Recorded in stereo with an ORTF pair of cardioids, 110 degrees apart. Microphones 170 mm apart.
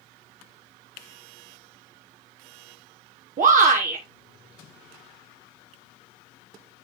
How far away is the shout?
About 1.1 m.